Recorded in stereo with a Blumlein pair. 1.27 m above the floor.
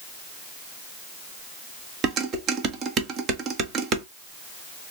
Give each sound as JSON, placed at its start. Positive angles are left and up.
{"t": 2.0, "sound": "dishes clattering", "azimuth_deg": -30, "distance_m": 1.1}